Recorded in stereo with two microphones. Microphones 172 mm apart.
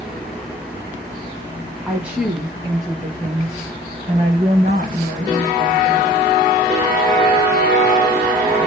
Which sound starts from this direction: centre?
A woman speaking, at 1.9 s.